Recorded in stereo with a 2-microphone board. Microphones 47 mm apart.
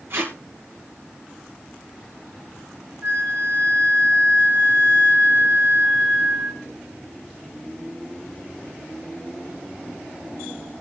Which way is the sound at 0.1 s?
60° right (ahead or behind).